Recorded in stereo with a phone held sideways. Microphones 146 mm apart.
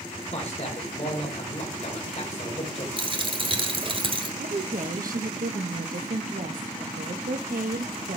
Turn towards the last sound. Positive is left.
turn(degrees=-70)  # may be behind; listen again after turning